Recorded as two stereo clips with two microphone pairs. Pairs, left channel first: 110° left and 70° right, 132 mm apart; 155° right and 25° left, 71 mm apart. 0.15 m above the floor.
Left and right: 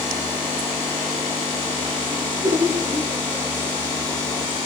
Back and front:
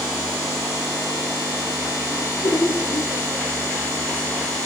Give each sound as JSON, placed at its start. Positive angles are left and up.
{"t": 2.2, "sound": "laughter", "azimuth_deg": -130, "distance_m": 4.0}